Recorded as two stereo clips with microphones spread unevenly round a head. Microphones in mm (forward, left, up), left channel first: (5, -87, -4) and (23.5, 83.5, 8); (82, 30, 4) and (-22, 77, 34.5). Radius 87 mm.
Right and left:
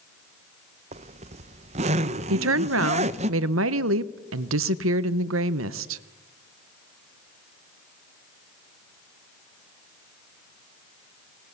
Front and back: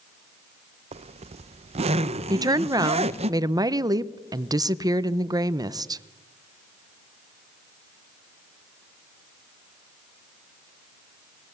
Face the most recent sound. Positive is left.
turn(degrees=100)